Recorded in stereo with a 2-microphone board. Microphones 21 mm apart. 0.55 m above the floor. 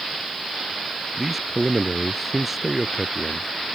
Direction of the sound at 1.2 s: 10° right (ahead or behind).